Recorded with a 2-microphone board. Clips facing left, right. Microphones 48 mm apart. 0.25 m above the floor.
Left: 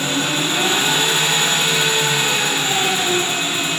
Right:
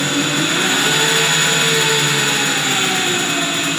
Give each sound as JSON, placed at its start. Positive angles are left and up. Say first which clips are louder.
{"t": 0.0, "sound": "an engine running", "louder": "right 2 dB", "side_deg": -65, "distance_m": 1.5}